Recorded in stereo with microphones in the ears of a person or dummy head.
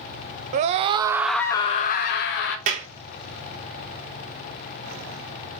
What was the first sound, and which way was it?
A scream, 35° right (ahead or behind).